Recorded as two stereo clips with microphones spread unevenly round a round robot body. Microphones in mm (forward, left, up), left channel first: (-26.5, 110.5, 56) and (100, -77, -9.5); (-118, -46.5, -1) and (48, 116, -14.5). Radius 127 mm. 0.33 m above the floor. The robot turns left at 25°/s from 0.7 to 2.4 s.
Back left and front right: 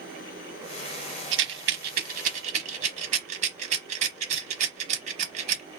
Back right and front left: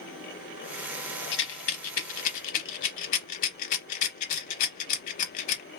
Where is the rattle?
85° right, 0.7 m; by 5.6 s 110° right, 0.7 m.